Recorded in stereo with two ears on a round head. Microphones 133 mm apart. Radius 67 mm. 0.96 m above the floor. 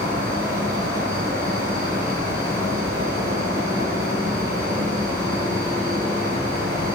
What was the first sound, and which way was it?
An insect, 60° right (ahead or behind).